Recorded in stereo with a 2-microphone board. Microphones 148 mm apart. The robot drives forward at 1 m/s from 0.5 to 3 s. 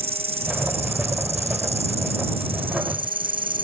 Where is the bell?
I don't hear a bell.